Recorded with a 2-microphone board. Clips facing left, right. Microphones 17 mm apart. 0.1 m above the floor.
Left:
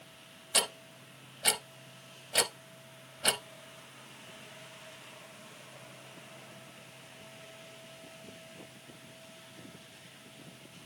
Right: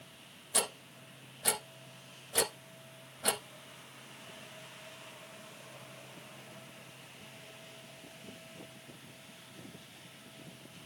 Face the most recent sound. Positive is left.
turn(degrees=20)  # may be behind; listen again after turning